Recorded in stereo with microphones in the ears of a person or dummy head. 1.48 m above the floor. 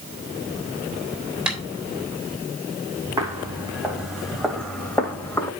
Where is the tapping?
5° right (ahead or behind), 3 m.